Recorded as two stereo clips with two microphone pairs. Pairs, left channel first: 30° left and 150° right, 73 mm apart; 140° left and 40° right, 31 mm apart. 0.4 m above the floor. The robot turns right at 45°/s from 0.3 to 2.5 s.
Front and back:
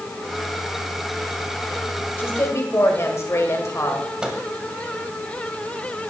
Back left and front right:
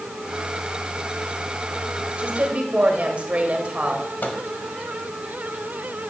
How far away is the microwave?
About 1.3 m.